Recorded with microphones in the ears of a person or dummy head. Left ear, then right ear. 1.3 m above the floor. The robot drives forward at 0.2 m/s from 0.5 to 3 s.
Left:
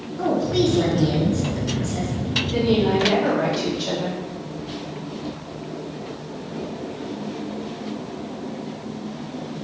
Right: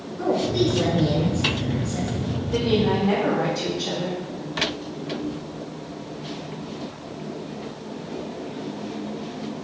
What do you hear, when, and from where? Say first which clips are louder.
0.2 s a woman speaking: left 1 dB; 75° left (ahead or behind), 1.5 m; by 2.1 s 65° left (ahead or behind), 1.5 m
2.5 s a woman speaking: even; 40° right (ahead or behind), 1.2 m; by 4.2 s 35° right (ahead or behind), 1.2 m